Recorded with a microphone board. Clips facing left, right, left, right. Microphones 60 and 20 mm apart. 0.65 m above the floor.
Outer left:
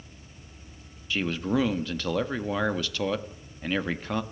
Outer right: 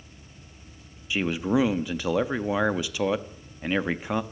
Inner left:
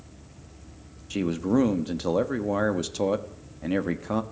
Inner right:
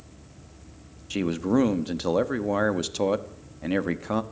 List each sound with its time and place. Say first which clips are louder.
1.1 s a man speaking: outer right 2 dB, even; 15° right (ahead or behind), 1.1 m